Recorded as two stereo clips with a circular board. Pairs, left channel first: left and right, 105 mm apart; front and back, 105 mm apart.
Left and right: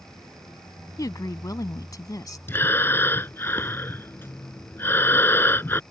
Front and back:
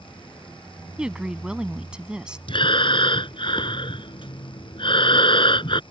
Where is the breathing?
25° left.